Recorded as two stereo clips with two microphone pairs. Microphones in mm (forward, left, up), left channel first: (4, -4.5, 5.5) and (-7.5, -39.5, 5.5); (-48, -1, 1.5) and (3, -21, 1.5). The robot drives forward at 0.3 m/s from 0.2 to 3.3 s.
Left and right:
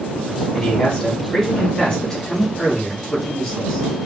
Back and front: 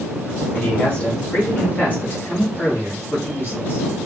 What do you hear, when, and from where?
0.5 s a man speaking: 105° left, 1.3 m; by 4.1 s 145° left, 1.6 m